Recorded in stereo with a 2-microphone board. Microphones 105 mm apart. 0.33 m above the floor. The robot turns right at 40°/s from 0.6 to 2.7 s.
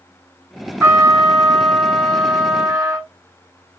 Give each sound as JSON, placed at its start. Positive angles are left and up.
{"t": 0.8, "sound": "a trumpet", "azimuth_deg": -145, "distance_m": 1.3}